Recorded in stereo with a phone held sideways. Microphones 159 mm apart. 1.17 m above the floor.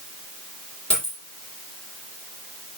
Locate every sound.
0.9 s a dropped coin: 5° left (ahead or behind), 6.5 m